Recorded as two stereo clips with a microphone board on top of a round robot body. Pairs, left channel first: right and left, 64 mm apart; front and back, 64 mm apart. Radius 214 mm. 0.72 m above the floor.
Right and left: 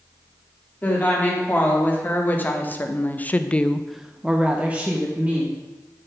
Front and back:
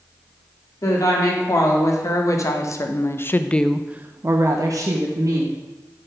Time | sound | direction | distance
0.8 | a woman speaking | 30° right | 2 m